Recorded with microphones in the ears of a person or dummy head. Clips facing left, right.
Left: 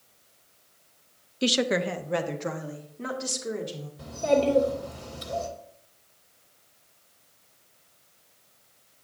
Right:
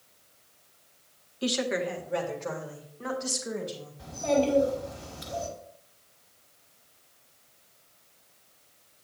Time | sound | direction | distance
1.4 | a woman speaking | 30° left (ahead or behind) | 0.5 m
4.0 | a child speaking | 80° left | 3 m